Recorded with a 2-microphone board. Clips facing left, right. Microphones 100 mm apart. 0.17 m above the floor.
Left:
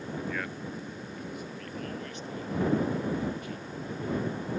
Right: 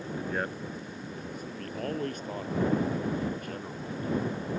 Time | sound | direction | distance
0.2 | a man speaking | 35° right (ahead or behind) | ?